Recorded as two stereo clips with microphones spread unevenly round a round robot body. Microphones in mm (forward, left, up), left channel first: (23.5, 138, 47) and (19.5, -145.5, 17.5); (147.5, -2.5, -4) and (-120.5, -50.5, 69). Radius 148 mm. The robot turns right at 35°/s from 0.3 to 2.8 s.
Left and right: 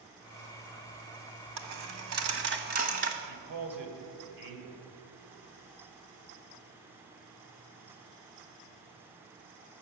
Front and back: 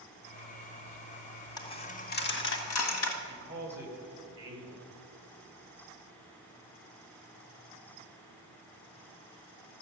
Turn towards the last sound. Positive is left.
turn(degrees=-90)